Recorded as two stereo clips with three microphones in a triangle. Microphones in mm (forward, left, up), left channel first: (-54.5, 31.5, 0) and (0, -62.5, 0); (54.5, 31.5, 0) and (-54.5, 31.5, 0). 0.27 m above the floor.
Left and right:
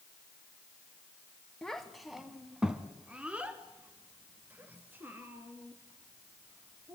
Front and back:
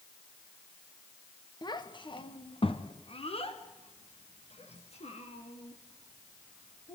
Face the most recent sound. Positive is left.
turn(degrees=10)